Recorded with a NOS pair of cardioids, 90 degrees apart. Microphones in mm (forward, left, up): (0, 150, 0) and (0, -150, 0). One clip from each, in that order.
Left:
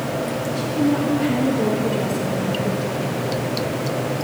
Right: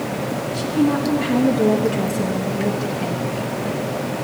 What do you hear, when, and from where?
0.5 s a woman speaking: 30° right, 1.3 m